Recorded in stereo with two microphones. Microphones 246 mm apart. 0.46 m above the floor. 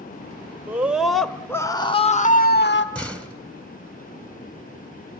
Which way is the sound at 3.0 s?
5° left (ahead or behind).